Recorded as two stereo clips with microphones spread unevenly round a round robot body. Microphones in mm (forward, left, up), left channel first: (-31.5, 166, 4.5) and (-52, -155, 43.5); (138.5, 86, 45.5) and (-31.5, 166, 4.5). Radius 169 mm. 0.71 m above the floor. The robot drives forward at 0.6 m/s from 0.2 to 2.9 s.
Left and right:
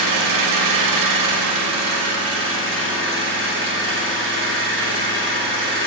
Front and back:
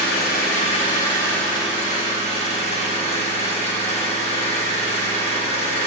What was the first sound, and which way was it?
An engine running, 75° right.